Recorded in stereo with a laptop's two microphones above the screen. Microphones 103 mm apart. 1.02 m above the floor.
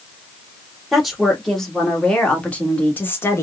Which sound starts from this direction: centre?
A woman speaking, at 0.9 s.